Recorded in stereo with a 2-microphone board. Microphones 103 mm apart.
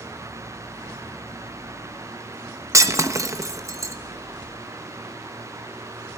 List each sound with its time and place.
2.7 s breaking glass: 30° right (ahead or behind), 0.9 m